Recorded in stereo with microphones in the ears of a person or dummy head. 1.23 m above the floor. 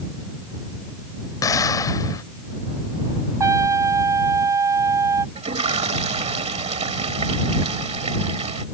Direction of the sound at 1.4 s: 15° left (ahead or behind).